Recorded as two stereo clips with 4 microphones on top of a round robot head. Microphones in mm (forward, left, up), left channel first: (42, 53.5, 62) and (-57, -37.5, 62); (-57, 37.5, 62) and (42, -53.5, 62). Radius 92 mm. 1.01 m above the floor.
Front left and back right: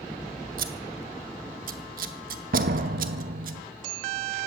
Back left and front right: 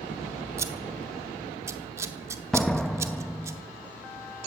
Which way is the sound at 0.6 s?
110° right.